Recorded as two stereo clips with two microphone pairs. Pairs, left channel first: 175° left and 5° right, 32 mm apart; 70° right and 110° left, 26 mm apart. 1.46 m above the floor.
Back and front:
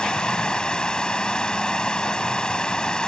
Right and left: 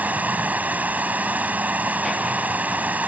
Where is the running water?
110° left.